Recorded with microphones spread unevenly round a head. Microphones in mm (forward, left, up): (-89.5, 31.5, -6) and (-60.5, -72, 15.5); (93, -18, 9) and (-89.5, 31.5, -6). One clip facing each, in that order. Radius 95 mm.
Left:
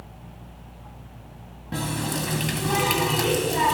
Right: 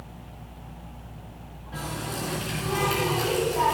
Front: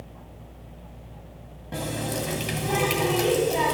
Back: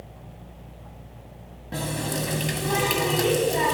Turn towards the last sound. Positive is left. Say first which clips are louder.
# left 5 dB, even
turn(degrees=75)